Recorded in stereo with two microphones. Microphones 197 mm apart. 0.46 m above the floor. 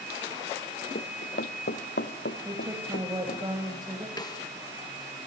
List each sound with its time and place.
0.9 s running footsteps: 55° left (ahead or behind), 0.7 m; by 3.5 s 60° left (ahead or behind), 2.5 m
2.5 s a woman speaking: 20° right (ahead or behind), 2 m
4.2 s a snare drum: 20° left (ahead or behind), 1.4 m